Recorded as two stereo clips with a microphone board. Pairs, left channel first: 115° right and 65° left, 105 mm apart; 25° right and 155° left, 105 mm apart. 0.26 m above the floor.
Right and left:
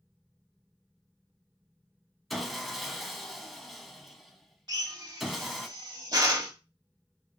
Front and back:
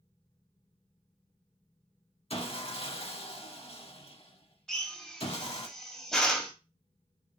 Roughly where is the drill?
Ahead left.